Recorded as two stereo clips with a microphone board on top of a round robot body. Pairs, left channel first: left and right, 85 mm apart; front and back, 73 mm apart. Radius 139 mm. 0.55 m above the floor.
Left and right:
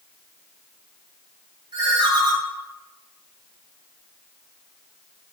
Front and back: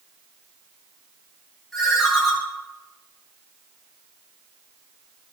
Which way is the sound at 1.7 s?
90° right.